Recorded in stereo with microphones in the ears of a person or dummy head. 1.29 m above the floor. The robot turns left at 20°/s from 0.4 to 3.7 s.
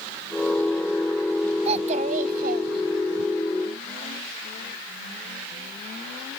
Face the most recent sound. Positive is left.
turn(degrees=-80)